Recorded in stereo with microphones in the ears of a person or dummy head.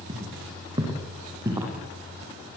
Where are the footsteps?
25° right (ahead or behind), 4.5 m; by 1.7 s 15° right (ahead or behind), 3 m.